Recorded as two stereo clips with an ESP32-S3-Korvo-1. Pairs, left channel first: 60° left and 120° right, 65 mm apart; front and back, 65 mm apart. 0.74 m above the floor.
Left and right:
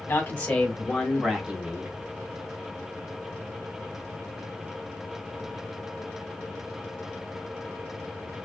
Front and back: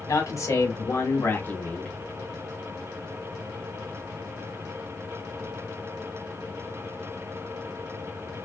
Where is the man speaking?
10° left, 1.1 m; by 1.9 s 70° right, 0.8 m.